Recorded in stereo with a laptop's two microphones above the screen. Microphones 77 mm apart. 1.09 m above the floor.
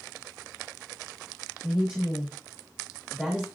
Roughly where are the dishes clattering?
I don't hear dishes clattering.